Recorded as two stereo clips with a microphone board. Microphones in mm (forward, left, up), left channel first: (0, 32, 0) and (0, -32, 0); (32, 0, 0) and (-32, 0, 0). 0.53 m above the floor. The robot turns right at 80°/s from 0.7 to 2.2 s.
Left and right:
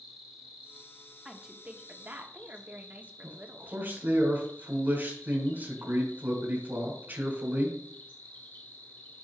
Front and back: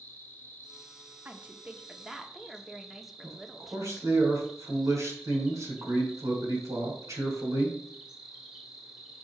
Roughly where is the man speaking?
Behind right.